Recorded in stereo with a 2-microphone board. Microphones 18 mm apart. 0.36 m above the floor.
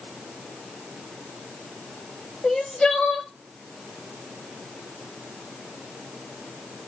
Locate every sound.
2.4 s crying: 65° left (ahead or behind), 0.9 m